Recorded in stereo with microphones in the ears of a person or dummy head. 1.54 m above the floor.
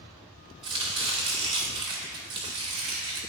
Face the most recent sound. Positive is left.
turn(degrees=-25)  # may be behind; listen again after turning